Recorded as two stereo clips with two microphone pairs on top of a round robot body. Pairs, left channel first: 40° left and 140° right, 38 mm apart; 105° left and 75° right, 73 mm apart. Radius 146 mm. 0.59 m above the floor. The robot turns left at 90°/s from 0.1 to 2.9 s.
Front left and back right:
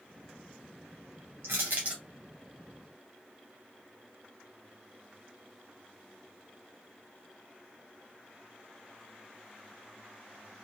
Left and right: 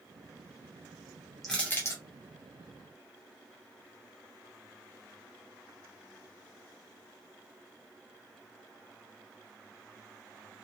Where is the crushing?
160° right, 0.6 m; by 2.0 s 145° left, 0.6 m.